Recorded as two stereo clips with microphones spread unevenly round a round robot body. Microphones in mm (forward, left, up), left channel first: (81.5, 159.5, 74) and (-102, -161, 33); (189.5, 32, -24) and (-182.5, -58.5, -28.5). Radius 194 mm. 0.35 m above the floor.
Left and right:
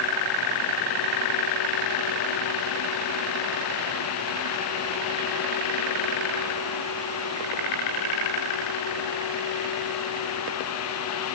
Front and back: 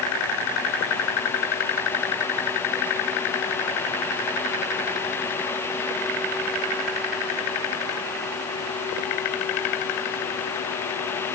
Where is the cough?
I don't hear a cough.